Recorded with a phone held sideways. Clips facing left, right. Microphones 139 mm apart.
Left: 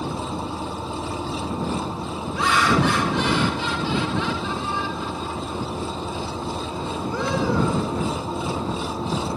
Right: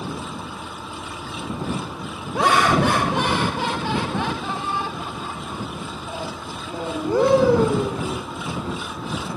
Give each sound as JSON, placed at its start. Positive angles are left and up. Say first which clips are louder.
{"t": 0.0, "sound": "an engine running", "louder": "left 3 dB", "side_deg": 30}
{"t": 2.4, "sound": "laughter", "louder": "right 3 dB", "side_deg": -55}